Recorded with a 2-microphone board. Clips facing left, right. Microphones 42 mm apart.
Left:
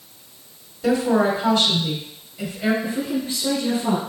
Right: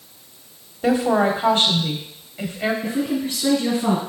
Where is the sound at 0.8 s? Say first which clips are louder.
Right 1 dB; 40° right (ahead or behind), 1.6 m.